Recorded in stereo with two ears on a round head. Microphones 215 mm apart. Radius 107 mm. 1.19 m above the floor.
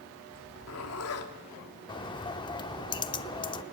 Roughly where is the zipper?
Left.